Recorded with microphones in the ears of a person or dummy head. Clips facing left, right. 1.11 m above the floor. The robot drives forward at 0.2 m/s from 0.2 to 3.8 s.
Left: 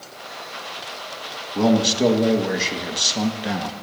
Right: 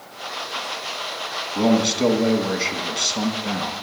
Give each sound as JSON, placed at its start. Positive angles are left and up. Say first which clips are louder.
{"t": 1.6, "sound": "a man speaking", "louder": "left 1 dB", "side_deg": 5, "distance_m": 1.5}